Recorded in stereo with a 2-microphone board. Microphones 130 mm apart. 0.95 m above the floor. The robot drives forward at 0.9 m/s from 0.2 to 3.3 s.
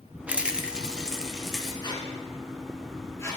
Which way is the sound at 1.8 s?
35° left (ahead or behind).